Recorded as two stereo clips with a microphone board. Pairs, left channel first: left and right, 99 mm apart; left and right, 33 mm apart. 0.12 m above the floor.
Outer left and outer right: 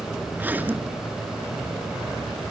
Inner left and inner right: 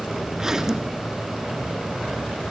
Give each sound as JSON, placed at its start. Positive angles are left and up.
{"t": 0.3, "sound": "a zipper", "side_deg": -15, "distance_m": 1.7}